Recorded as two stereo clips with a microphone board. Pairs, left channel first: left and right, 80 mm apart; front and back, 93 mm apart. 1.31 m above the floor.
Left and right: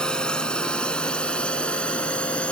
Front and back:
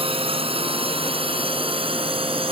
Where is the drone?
170° left; by 2.5 s 165° left.